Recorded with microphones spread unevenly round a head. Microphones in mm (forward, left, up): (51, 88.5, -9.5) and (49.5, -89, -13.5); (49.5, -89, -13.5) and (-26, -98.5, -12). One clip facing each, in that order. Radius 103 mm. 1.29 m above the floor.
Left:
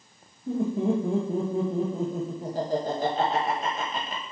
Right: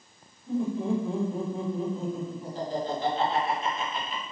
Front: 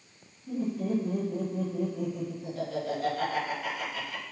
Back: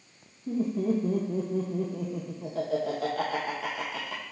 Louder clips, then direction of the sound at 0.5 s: Left 2 dB, back 3 dB; 150° left.